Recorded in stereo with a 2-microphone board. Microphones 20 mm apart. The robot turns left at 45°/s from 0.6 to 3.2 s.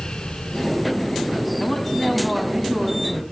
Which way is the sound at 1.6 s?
25° left.